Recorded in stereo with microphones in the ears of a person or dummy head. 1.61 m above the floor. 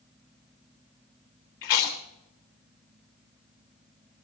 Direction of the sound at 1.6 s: 20° left (ahead or behind).